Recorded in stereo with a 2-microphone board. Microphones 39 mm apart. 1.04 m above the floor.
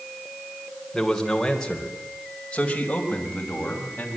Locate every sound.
0.9 s a man speaking: 5° left (ahead or behind), 4.5 m; by 4.2 s 40° left (ahead or behind), 7.5 m